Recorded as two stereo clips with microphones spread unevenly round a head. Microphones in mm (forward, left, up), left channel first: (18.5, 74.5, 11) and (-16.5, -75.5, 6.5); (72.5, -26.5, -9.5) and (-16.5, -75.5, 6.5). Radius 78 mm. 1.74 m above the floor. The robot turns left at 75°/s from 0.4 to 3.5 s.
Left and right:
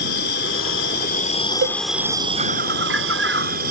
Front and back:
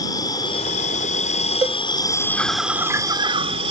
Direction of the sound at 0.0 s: 100° left.